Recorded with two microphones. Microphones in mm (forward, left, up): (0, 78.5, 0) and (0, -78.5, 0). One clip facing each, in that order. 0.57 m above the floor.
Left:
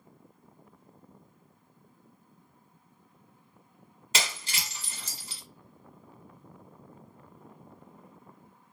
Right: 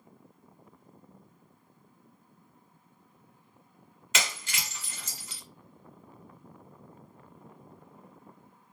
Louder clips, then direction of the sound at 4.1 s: Even; 35° left (ahead or behind).